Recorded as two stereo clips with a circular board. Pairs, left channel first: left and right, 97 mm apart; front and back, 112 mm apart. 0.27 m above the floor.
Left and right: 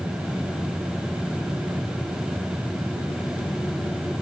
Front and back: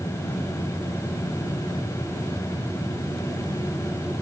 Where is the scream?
No scream in this recording.